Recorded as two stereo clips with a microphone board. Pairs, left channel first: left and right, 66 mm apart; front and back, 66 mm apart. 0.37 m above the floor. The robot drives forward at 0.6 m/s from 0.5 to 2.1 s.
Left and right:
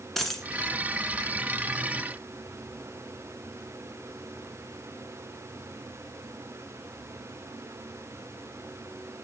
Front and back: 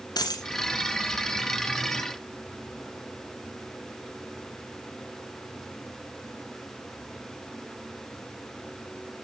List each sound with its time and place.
0.2 s a dropped coin: 5° left, 1.4 m